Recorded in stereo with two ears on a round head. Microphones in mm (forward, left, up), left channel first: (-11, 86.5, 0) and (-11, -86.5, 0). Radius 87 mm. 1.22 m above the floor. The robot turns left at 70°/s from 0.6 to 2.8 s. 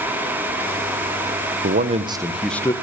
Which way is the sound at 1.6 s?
125° right.